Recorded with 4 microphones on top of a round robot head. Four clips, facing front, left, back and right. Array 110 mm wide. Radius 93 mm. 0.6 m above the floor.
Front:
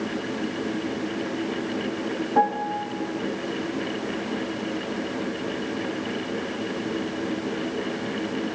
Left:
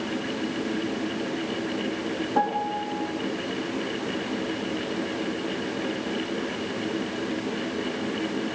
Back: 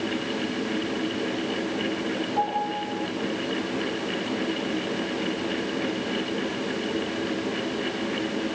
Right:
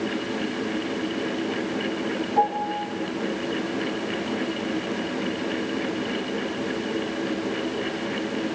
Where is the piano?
35° left, 5.5 m.